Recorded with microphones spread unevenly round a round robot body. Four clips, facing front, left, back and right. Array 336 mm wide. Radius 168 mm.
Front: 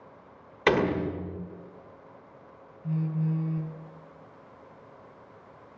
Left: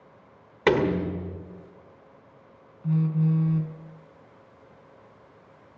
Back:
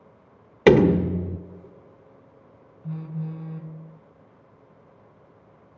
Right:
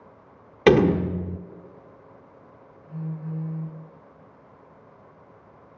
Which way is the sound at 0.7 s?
155° right.